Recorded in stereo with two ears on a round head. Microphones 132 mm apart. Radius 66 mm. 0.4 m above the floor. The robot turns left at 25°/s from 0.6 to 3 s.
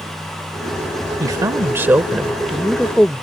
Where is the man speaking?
145° right; by 3.2 s 170° left.